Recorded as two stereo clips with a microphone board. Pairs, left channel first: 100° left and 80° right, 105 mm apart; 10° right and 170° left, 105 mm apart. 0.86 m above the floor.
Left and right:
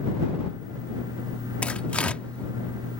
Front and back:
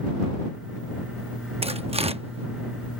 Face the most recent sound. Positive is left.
turn(degrees=175)